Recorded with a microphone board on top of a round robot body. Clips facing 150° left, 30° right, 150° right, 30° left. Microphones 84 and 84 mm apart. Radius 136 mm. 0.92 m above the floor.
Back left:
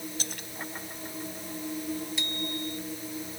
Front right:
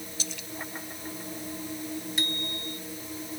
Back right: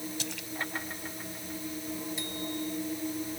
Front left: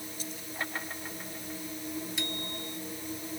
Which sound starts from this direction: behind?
A splash, at 0.2 s.